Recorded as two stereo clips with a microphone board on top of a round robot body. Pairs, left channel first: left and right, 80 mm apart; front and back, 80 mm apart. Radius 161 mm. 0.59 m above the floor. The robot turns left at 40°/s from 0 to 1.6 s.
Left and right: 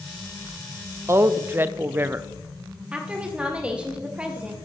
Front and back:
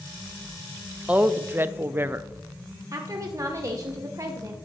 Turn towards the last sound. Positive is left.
turn(degrees=-160)